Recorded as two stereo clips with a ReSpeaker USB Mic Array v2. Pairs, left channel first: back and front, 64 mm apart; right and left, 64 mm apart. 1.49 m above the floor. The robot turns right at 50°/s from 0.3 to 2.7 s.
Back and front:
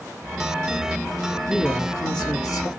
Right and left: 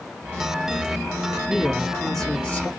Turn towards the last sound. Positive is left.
turn(degrees=-145)